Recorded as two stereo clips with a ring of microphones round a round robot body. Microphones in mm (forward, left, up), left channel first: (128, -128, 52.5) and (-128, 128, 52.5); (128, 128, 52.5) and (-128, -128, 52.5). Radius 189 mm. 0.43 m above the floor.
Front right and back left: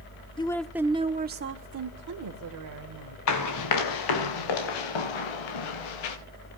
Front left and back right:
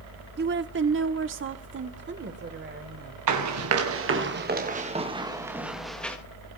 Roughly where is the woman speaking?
Right.